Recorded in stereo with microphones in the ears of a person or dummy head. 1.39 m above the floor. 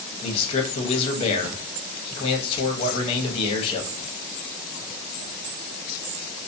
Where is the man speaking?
30° left (ahead or behind), 0.7 m.